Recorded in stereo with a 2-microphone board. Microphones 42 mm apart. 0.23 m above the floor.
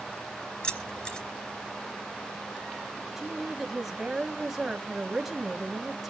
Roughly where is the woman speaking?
Centre.